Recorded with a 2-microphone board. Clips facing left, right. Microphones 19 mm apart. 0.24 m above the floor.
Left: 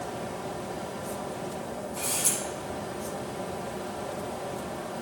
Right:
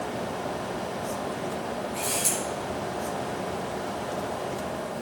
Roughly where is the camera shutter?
Right.